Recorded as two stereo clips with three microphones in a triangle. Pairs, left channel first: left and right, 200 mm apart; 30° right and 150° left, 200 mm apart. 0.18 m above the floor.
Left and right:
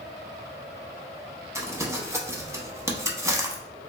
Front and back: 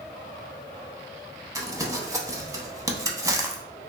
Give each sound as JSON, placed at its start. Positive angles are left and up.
{"t": 1.6, "sound": "crumpling", "azimuth_deg": -150, "distance_m": 0.6}